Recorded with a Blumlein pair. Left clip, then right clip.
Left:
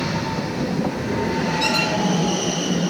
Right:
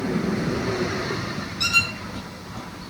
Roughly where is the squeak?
Ahead right.